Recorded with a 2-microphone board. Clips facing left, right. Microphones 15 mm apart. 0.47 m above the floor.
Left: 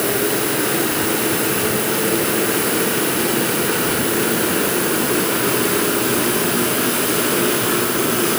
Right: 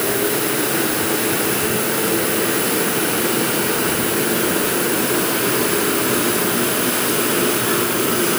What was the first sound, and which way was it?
Only background noise.